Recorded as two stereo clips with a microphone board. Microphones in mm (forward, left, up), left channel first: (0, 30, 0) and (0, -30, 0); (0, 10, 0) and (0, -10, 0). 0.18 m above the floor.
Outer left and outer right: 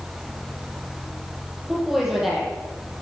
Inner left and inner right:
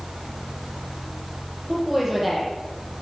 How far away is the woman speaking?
About 6 m.